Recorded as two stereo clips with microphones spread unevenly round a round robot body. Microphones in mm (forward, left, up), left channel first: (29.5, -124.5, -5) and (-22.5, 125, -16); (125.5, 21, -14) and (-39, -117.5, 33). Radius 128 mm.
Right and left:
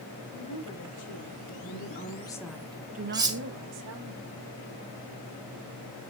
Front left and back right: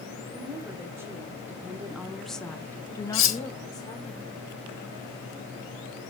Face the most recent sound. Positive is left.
turn(degrees=25)